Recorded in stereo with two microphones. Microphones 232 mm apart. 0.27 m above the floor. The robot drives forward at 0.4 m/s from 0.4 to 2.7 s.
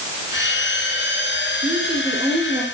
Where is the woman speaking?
25° right (ahead or behind), 4 m.